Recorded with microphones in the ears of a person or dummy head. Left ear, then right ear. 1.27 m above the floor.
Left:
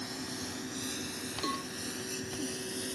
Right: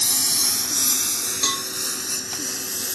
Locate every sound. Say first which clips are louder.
0.0 s a lawn mower: right 17 dB; 60° right (ahead or behind); by 2.9 s 45° right (ahead or behind)
1.4 s a cowbell: right 11 dB; 70° right (ahead or behind)